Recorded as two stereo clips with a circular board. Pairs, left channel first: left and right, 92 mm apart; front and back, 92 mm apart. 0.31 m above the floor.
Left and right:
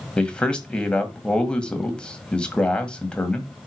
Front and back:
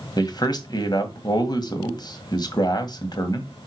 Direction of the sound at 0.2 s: 15° left.